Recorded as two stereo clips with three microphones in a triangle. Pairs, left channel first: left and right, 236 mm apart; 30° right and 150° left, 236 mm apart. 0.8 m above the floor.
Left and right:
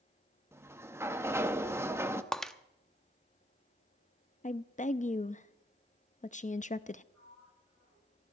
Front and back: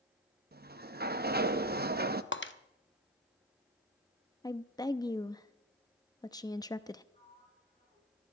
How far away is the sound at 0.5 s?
About 0.6 m.